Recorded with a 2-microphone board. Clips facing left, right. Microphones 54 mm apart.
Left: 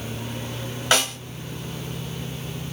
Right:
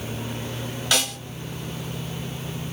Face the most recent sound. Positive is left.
turn(degrees=35)  # may be behind; listen again after turning